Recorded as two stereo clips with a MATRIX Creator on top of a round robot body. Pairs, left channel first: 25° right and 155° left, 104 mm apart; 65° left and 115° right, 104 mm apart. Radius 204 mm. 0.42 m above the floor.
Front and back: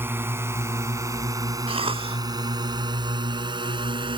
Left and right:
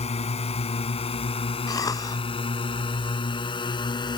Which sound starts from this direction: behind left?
A cough, at 1.7 s.